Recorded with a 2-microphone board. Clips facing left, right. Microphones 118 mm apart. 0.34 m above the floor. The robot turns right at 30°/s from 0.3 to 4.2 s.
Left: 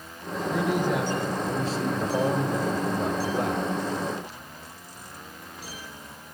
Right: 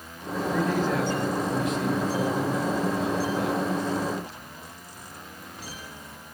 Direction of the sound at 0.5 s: 10° left.